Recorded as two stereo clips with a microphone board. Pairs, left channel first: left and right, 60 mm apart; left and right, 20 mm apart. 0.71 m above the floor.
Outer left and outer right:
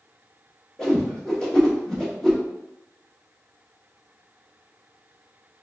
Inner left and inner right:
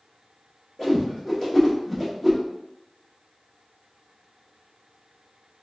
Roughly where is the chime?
I don't hear a chime.